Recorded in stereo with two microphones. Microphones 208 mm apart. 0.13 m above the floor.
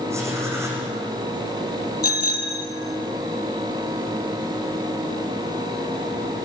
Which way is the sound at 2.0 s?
45° left (ahead or behind).